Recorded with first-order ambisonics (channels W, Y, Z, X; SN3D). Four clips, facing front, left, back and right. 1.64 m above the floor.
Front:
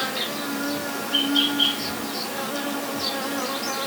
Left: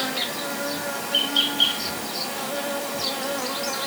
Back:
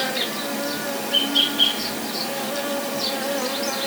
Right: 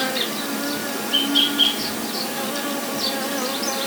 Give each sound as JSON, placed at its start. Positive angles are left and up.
{"t": 0.0, "sound": "an insect", "azimuth_deg": -100, "distance_m": 1.9}